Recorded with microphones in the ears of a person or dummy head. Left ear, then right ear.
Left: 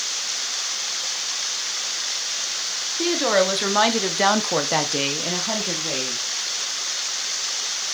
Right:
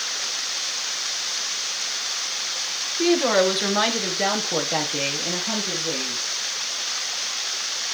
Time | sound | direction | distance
3.0 | a woman speaking | 10° left (ahead or behind) | 2.5 m